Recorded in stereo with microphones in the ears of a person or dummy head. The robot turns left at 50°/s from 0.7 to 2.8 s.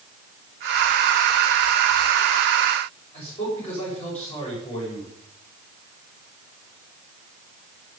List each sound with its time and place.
3.1 s a man speaking: 35° left (ahead or behind), 7.5 m